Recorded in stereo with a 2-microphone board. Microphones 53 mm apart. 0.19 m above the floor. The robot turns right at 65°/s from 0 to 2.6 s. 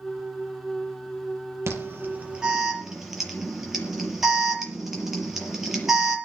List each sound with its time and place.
1.7 s an alarm: 60° right (ahead or behind), 6 m; by 6.2 s 5° right (ahead or behind), 6 m